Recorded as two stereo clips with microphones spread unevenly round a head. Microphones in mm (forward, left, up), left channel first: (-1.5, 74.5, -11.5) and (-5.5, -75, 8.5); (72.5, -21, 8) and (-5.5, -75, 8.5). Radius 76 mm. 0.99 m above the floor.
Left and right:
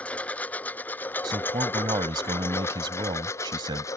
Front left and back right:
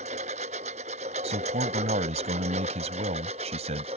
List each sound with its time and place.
0.0 s a lawn mower: 170° left; by 4.0 s 160° left
1.2 s a man speaking: 155° right